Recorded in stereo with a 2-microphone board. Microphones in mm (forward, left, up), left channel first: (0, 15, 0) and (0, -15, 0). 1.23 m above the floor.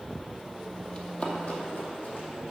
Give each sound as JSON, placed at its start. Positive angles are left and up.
{"t": 0.9, "sound": "running footsteps", "side_deg": 35, "distance_m": 1.5}